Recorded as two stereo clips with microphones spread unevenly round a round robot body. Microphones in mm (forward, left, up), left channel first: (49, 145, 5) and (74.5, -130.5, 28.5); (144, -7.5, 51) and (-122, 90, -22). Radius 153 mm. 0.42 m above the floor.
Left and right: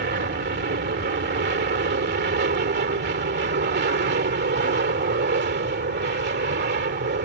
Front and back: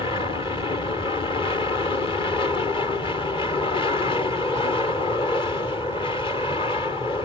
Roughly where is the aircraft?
Right.